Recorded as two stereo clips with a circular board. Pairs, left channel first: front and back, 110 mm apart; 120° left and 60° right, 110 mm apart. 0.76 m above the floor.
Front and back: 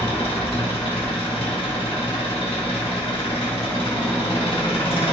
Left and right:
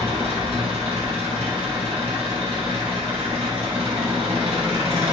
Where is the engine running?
35° right, 1.0 m.